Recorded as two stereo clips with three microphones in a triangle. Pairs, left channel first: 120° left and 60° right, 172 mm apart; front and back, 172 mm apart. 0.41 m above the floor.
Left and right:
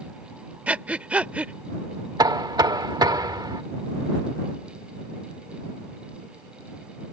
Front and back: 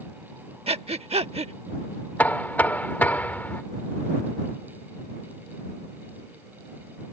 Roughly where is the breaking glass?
No breaking glass in this recording.